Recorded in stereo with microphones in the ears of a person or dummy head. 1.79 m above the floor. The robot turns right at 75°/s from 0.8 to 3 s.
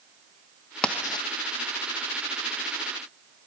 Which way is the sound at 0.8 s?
5° left (ahead or behind).